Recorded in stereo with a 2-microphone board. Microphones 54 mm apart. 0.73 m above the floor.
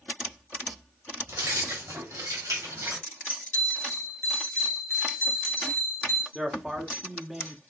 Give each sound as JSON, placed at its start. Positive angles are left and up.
{"t": 1.3, "sound": "keys jangling", "side_deg": -80, "distance_m": 3.0}
{"t": 3.5, "sound": "a bell", "side_deg": -65, "distance_m": 2.0}
{"t": 6.3, "sound": "a man speaking", "side_deg": -5, "distance_m": 1.4}